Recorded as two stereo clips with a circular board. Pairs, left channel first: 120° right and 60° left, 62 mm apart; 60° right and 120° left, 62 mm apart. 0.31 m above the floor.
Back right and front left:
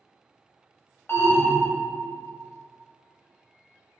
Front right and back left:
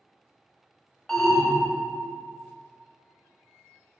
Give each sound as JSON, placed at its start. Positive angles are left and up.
{"t": 1.1, "sound": "an alarm", "azimuth_deg": -135, "distance_m": 0.9}